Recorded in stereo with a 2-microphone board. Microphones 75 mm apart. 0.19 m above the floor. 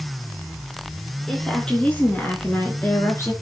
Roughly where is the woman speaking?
Centre.